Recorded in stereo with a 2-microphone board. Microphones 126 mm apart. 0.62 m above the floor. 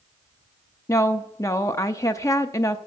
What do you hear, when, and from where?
0.9 s a woman speaking: 25° left (ahead or behind), 0.6 m